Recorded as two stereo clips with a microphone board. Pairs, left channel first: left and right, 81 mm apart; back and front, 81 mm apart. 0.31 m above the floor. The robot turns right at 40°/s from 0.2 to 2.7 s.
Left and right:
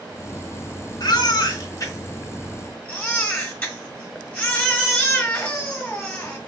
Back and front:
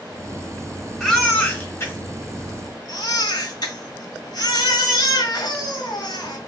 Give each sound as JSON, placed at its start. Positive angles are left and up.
{"t": 1.0, "sound": "a baby crying", "azimuth_deg": 90, "distance_m": 1.6}